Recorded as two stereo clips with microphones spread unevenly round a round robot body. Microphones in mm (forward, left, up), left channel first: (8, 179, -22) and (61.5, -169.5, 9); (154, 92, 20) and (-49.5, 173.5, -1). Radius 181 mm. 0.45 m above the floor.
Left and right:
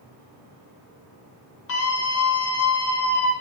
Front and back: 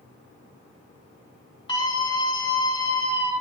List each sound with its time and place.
1.7 s a scream: 45° left, 4.5 m